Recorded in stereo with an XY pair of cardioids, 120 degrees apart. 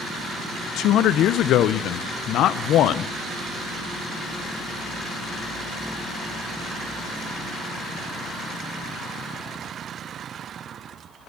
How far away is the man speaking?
About 0.5 m.